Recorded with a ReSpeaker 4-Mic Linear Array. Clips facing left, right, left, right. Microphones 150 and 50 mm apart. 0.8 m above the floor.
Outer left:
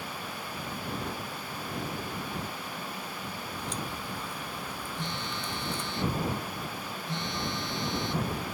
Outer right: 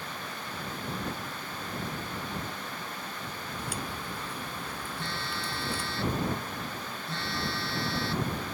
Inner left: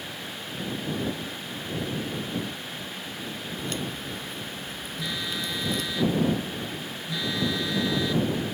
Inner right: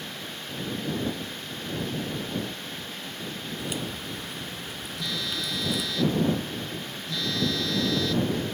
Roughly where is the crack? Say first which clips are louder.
Even, inner left 1 dB; centre.